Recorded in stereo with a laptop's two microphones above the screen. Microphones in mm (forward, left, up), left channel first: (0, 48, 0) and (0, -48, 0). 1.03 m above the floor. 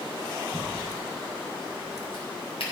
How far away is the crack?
About 4 m.